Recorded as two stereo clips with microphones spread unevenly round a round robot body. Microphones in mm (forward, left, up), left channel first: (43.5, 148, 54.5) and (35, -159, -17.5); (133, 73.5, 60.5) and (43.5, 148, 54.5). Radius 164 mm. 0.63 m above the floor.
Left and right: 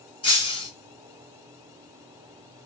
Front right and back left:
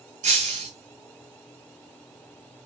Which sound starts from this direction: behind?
Breaking glass, at 0.2 s.